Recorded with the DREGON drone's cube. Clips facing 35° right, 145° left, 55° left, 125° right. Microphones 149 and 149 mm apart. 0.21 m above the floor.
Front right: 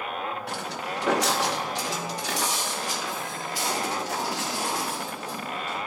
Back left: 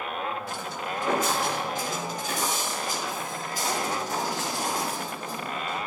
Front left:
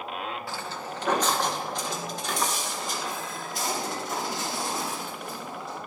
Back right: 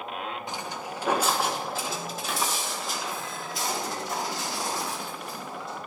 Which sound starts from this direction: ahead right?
Footsteps, at 0.5 s.